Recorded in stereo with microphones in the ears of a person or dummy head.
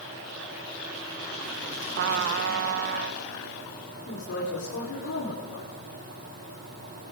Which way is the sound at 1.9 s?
55° right (ahead or behind).